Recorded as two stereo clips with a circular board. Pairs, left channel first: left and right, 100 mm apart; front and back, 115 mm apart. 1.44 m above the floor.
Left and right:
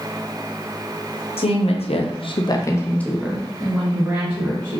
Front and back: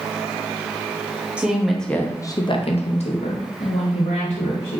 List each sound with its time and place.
1.4 s a woman speaking: 100° left, 0.8 m; by 4.8 s 20° right, 1.6 m